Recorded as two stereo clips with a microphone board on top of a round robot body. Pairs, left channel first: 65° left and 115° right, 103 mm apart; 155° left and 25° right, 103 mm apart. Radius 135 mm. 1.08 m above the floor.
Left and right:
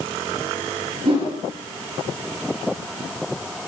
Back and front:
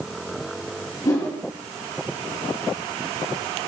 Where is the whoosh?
145° right, 3.5 m.